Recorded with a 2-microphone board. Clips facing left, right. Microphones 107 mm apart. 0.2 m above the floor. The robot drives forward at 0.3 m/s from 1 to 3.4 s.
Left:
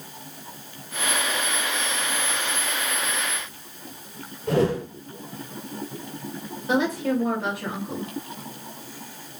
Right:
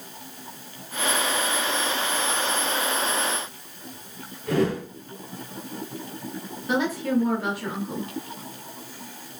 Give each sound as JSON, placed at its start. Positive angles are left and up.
{"t": 4.5, "sound": "a whoosh", "side_deg": 25, "distance_m": 4.0}
{"t": 6.7, "sound": "a woman speaking", "side_deg": 20, "distance_m": 3.0}